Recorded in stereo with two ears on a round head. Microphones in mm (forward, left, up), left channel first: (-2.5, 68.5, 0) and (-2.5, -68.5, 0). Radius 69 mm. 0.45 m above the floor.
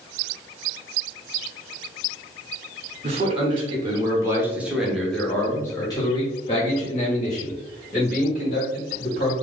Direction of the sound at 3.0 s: 40° right (ahead or behind).